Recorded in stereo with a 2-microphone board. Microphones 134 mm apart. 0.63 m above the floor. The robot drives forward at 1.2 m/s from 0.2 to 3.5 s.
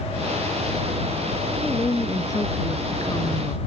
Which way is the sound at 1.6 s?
20° left (ahead or behind).